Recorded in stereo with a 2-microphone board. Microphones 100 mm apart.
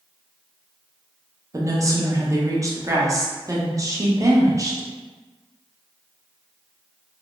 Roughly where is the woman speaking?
Right.